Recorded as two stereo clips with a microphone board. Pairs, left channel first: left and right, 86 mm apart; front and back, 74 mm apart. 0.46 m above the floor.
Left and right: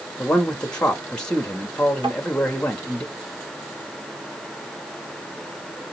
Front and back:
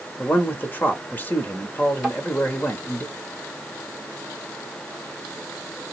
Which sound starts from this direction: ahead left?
A man speaking, at 0.2 s.